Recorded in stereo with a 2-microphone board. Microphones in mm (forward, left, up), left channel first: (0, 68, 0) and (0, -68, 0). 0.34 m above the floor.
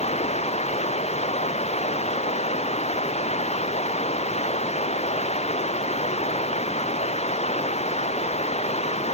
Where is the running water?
50° left (ahead or behind).